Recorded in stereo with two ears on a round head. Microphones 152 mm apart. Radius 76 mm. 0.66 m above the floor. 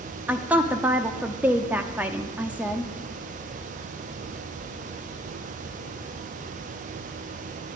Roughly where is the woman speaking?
Centre.